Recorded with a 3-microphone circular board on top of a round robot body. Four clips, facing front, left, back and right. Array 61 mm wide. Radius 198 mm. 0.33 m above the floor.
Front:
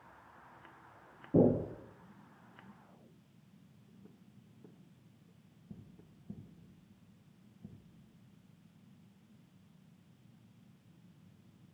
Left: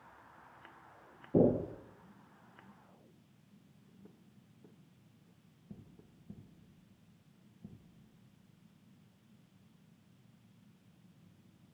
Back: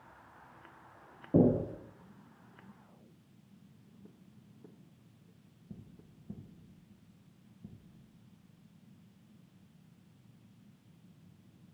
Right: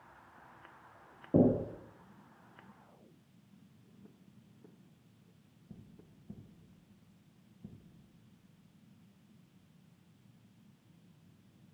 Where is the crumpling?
I don't hear crumpling.